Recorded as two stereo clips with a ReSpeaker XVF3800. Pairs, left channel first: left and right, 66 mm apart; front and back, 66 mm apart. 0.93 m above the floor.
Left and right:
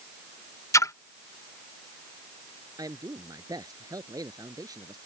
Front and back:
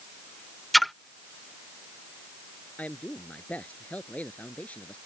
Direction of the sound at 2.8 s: 70° right.